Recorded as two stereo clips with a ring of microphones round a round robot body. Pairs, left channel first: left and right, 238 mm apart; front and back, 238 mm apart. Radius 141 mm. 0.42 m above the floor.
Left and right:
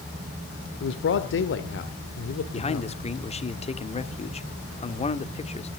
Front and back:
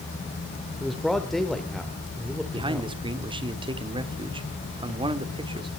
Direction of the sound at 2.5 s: 130° left.